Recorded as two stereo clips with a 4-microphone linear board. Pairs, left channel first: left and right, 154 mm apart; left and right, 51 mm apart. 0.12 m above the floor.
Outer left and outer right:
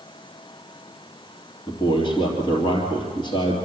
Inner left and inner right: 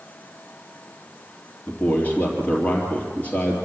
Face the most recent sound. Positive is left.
turn(degrees=30)  # may be behind; listen again after turning